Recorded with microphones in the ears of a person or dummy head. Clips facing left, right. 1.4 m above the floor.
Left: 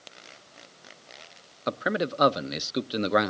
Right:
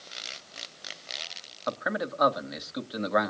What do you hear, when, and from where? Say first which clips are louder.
1.7 s a man speaking: left 3 dB; 30° left (ahead or behind), 0.5 m